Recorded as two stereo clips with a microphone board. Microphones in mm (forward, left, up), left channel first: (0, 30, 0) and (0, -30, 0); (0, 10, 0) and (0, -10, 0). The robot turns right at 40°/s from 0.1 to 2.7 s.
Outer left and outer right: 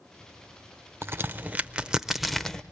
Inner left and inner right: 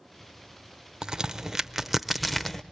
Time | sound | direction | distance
1.0 | a crack | 40° right (ahead or behind) | 0.5 m